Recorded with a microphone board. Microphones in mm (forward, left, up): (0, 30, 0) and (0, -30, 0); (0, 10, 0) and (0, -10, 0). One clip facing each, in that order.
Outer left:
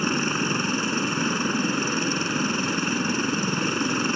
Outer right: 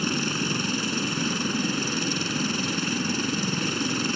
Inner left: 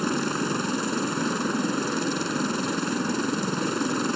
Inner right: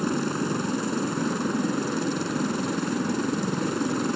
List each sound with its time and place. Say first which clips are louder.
0.0 s a helicopter: outer left 3 dB, even; 30° left (ahead or behind)